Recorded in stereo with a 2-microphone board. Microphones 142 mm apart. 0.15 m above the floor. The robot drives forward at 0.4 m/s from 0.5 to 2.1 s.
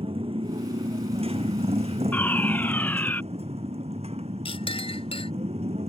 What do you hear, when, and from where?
0.0 s a motorcycle: 45° right (ahead or behind); by 5.9 s 50° right (ahead or behind)
2.1 s a fire alarm: 10° left (ahead or behind)
4.5 s a clink: 45° left (ahead or behind)